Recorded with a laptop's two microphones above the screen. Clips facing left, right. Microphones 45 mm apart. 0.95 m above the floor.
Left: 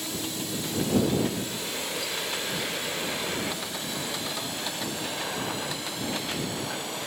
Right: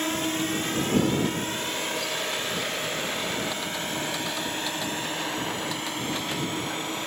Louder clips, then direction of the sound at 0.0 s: Right 7 dB; 50° right (ahead or behind).